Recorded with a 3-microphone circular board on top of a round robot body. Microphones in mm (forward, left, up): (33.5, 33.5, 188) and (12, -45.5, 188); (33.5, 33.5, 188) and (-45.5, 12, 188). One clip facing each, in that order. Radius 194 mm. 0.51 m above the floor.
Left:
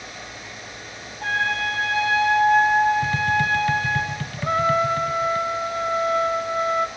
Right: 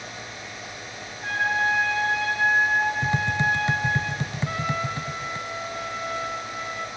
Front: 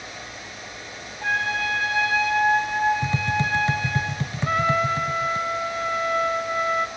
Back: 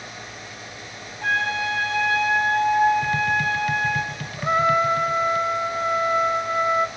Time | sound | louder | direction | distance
1.2 | a trumpet | even, back 1 dB | 100° left | 7 m
3.0 | tapping | left 3 dB, back 3 dB | 40° right | 1.0 m
4.4 | a trumpet | left 10 dB, back 3 dB | 125° left | 0.9 m